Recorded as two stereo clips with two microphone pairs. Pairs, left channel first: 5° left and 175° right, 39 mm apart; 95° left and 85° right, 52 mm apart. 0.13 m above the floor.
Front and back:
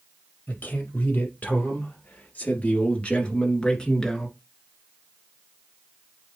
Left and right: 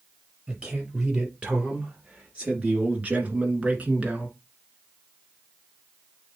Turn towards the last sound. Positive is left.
turn(degrees=-60)